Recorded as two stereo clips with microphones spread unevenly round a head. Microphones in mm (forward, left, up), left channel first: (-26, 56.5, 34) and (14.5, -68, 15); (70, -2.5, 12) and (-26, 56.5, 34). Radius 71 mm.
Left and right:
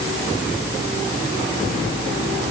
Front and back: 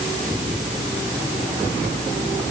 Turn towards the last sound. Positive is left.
No sound to turn to.